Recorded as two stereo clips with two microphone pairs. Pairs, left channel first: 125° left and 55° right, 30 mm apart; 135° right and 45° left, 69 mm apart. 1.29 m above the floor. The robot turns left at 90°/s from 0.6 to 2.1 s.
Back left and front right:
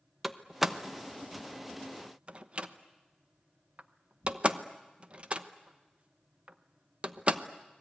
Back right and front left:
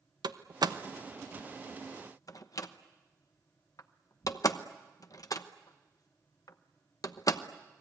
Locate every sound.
0.2 s a door slam: 35° left, 1.0 m; by 7.4 s 100° right, 1.0 m